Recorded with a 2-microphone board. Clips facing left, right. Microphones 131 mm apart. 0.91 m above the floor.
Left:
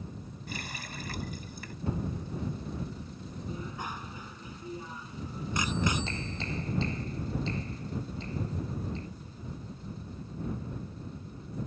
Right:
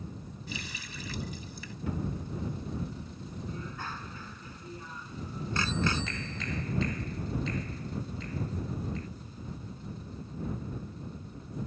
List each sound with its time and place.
0.5 s a running tap: 55° left (ahead or behind)
1.9 s a cupboard door: 30° left (ahead or behind)
3.5 s a bicycle bell: 15° left (ahead or behind)
5.8 s a clap: 30° left (ahead or behind)